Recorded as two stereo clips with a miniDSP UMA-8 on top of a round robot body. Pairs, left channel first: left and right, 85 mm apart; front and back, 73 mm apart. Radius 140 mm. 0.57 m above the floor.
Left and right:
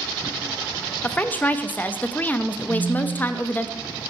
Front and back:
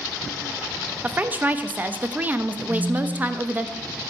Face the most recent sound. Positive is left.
turn(degrees=165)